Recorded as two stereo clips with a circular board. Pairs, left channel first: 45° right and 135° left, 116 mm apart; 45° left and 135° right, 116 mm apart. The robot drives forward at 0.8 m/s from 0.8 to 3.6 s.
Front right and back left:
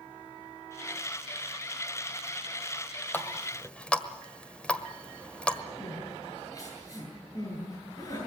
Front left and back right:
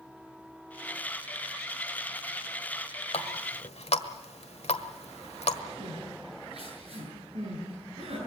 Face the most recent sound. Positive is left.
turn(degrees=-105)